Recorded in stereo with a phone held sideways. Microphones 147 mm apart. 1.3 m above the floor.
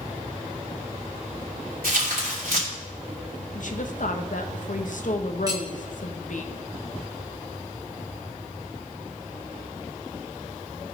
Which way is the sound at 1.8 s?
75° right (ahead or behind).